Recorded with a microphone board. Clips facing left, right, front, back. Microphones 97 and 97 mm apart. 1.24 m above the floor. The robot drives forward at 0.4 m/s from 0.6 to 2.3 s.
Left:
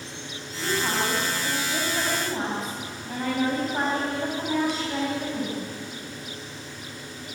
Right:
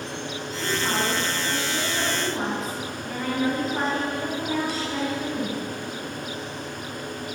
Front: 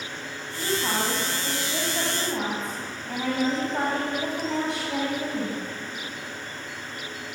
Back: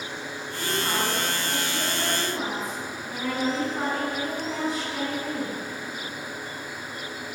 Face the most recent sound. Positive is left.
turn(degrees=25)